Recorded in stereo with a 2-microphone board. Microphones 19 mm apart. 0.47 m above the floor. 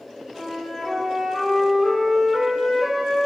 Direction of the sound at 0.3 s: 35° right (ahead or behind).